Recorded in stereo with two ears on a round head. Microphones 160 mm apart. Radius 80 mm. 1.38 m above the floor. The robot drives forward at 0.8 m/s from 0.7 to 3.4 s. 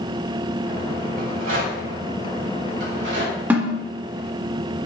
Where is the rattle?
75° right (ahead or behind), 3 m; by 3.4 s 70° right (ahead or behind), 3 m.